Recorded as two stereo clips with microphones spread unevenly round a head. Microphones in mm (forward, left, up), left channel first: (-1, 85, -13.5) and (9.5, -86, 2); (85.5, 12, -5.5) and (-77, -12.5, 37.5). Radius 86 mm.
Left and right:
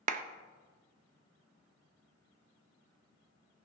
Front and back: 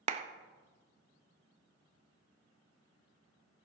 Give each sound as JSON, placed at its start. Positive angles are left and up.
{"t": 0.1, "sound": "a clap", "azimuth_deg": -130, "distance_m": 0.6}